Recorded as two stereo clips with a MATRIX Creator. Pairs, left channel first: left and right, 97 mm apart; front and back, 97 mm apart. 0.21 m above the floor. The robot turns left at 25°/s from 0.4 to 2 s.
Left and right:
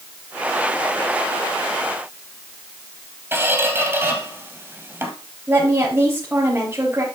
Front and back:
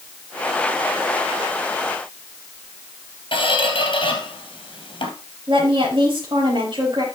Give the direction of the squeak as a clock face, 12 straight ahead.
1 o'clock.